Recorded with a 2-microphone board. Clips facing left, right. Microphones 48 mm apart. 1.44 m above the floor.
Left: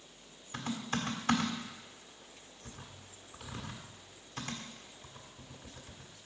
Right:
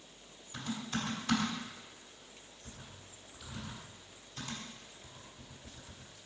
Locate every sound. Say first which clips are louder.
0.5 s typing on a keyboard: left 2 dB; 50° left (ahead or behind), 1.5 m